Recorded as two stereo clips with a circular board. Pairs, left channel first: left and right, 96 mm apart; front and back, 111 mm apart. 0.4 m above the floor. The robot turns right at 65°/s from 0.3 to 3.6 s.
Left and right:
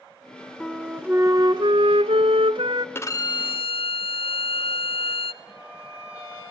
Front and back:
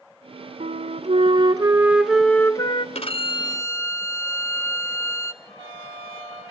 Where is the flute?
170° left, 1.2 m; by 2.9 s 40° right, 1.2 m.